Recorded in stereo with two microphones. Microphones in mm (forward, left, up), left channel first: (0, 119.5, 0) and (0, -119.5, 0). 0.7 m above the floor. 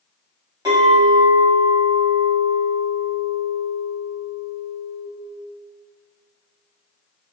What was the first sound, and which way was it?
A clink, 15° right (ahead or behind).